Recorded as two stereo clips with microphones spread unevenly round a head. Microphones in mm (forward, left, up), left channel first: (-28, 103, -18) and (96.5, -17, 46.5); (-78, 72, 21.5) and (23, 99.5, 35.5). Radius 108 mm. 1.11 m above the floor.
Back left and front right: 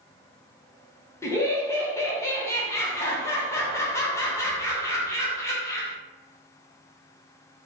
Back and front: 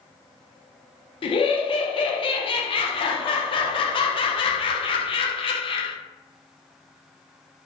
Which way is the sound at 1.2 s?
165° right.